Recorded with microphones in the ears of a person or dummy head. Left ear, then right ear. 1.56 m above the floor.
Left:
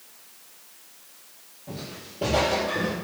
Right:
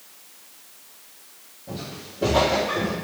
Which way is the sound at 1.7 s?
20° left (ahead or behind).